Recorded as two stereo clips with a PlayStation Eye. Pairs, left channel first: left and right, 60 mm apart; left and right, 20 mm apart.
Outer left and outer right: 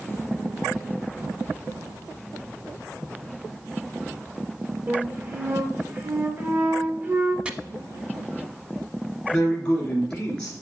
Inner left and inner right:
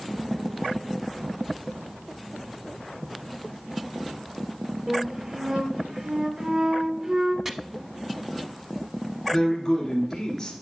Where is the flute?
35° right (ahead or behind), 0.9 m.